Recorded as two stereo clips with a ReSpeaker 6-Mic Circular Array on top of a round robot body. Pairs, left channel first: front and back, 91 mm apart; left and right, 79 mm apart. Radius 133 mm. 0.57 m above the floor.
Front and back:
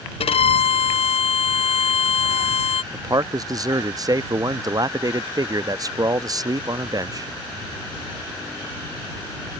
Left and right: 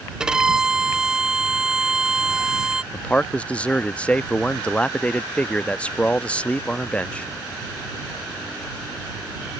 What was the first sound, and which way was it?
A violin, 10° right.